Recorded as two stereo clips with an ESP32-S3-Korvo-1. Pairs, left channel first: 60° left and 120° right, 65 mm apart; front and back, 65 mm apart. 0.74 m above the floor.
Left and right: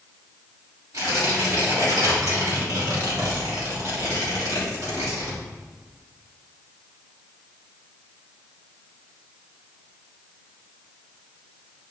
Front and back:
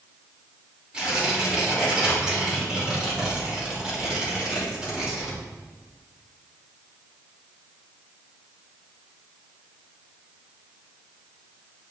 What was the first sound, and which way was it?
Tearing paper, 105° right.